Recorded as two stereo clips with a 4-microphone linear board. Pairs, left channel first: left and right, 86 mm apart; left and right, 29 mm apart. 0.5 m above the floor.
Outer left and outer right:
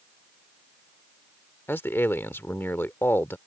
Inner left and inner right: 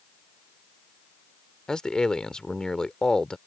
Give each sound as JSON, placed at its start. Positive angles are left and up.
{"t": 1.7, "sound": "a man speaking", "side_deg": 25}